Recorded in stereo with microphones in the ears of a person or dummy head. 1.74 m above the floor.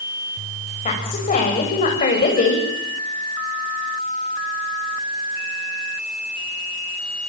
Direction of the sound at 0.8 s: 35° left (ahead or behind).